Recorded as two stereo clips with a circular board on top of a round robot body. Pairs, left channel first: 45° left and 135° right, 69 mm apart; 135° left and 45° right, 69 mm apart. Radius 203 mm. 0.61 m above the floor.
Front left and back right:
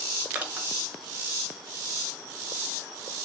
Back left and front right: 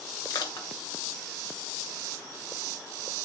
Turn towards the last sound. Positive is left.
turn(degrees=155)